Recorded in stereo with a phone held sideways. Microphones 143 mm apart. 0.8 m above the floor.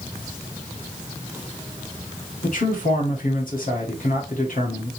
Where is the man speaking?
70° left (ahead or behind), 1.7 m.